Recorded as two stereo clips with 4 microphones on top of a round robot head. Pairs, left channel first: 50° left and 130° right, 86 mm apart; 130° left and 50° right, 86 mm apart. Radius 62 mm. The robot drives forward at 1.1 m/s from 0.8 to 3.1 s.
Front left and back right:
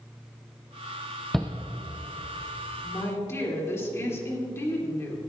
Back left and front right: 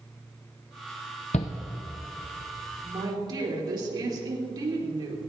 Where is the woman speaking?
10° right, 3.5 m.